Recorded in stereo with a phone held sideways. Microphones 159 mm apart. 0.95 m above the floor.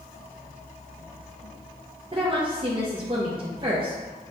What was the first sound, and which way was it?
A woman speaking, 35° right (ahead or behind).